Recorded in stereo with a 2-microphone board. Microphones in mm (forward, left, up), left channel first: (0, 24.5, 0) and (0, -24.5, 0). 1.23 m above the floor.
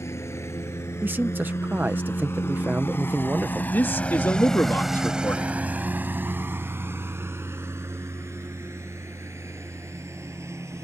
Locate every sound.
0.0 s a lawn mower: 75° left (ahead or behind); by 10.8 s 80° right
1.0 s a man speaking: 40° right (ahead or behind)
3.7 s a man speaking: 50° left (ahead or behind)